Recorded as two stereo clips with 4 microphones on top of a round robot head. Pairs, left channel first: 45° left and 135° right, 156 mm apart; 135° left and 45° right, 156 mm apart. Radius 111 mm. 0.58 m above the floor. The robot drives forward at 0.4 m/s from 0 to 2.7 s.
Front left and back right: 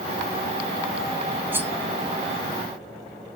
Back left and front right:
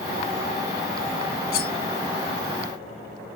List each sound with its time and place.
1.5 s cutlery clinking: 150° left, 1.0 m